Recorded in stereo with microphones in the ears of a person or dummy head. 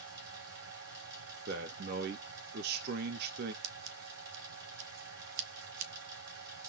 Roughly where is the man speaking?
Right.